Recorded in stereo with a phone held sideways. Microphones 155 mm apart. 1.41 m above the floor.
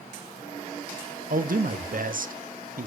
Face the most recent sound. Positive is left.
turn(degrees=-65)  # may be behind; listen again after turning